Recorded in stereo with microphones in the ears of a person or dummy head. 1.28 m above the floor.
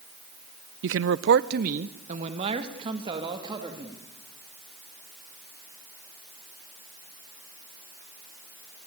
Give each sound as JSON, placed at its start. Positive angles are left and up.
{"t": 0.8, "sound": "a man speaking", "side_deg": -60, "distance_m": 0.6}